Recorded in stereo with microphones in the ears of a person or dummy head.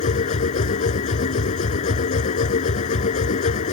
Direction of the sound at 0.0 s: 40° left (ahead or behind).